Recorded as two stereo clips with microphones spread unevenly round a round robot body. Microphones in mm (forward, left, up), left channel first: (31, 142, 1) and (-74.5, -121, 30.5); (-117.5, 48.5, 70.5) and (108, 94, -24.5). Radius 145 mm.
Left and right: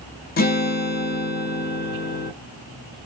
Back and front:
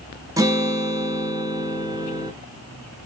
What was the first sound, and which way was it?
A guitar, 40° left.